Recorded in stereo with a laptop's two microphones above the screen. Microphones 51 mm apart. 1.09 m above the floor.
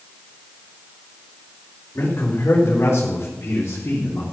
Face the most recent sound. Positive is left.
turn(degrees=80)